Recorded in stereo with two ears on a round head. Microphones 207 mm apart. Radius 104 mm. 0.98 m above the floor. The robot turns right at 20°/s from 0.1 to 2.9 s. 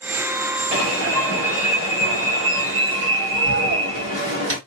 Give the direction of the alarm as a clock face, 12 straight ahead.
4 o'clock.